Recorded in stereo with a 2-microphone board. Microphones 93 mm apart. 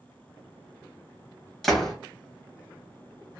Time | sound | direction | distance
1.6 | a door slam | centre (ahead or behind) | 1.4 m